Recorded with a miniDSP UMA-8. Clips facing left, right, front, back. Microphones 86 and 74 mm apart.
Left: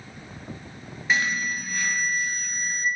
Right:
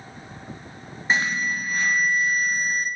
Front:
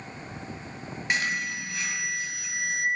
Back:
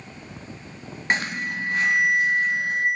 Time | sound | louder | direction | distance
1.1 | an alarm | right 2 dB, back 3 dB | 140° right | 1.5 m